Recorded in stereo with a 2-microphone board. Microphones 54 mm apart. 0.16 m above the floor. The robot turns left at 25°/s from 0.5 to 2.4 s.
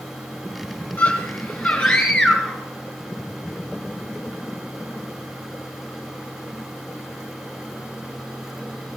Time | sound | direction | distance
1.0 | a scream | 50° left | 2 m